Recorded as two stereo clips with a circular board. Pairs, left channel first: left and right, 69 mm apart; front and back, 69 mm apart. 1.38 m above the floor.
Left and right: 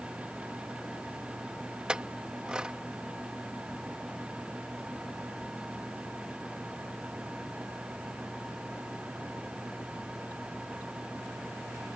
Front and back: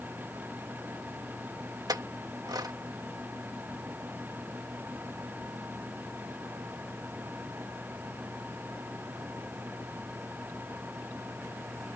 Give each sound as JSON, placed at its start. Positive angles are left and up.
{"t": 1.9, "sound": "a clink", "azimuth_deg": -165}